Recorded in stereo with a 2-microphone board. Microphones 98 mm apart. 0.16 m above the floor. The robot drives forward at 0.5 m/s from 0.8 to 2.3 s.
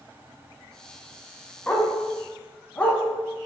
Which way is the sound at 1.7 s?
15° left (ahead or behind).